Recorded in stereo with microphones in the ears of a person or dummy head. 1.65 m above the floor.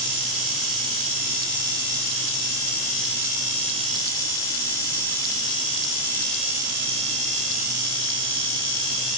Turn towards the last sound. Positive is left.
No sound to turn to.